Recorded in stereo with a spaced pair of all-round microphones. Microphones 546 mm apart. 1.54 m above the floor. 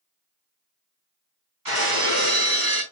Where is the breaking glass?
40° right (ahead or behind), 3.5 m.